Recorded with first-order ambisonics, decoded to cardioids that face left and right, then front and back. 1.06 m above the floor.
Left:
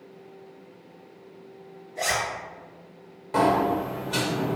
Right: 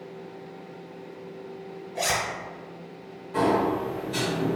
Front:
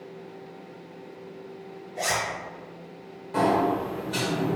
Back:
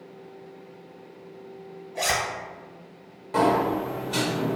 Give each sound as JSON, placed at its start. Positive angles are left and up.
{"t": 1.9, "sound": "a zipper", "azimuth_deg": -135, "distance_m": 1.8}
{"t": 3.3, "sound": "a sliding door", "azimuth_deg": 120, "distance_m": 0.9}